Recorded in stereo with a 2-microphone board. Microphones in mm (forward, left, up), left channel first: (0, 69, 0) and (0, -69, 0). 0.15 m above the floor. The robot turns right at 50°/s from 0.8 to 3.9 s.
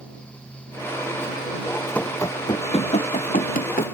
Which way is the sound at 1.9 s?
10° left (ahead or behind).